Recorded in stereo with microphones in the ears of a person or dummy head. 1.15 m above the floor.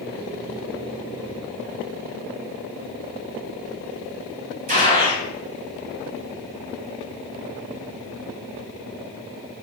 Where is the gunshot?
40° right (ahead or behind), 3 m.